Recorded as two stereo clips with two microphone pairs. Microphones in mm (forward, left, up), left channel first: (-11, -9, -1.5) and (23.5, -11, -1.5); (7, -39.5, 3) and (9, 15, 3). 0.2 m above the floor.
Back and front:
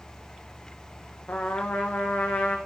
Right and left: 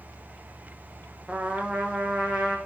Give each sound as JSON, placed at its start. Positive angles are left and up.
{"t": 1.3, "sound": "a trumpet", "azimuth_deg": 165, "distance_m": 2.5}